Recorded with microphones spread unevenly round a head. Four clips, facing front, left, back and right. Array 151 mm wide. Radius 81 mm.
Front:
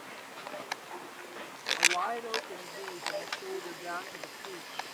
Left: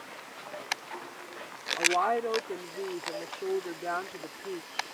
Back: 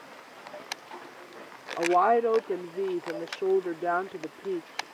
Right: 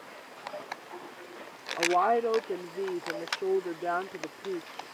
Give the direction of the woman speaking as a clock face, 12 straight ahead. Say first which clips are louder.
Right 3 dB, back 11 dB; 6 o'clock.